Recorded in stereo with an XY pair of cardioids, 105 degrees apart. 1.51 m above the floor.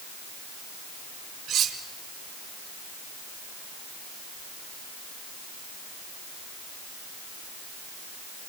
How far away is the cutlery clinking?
About 4 m.